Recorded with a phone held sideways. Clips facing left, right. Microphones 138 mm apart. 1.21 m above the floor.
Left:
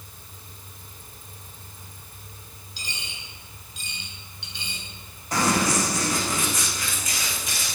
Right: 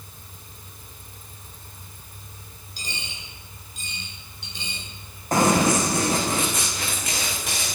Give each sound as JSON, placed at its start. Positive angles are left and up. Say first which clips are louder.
{"t": 2.8, "sound": "a dropped coin", "louder": "right 2 dB", "side_deg": -45, "distance_m": 8.0}
{"t": 5.3, "sound": "running footsteps", "louder": "right 4 dB", "side_deg": -50, "distance_m": 4.5}